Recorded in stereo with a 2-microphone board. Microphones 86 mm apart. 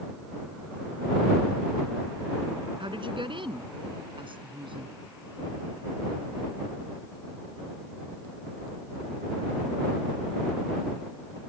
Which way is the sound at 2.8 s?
75° right (ahead or behind).